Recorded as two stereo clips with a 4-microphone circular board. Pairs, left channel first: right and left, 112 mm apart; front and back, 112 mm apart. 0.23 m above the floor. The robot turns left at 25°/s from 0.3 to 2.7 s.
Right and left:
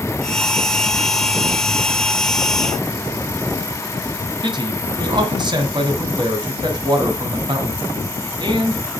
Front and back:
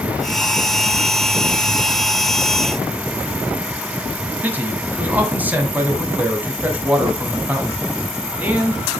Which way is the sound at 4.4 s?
110° left.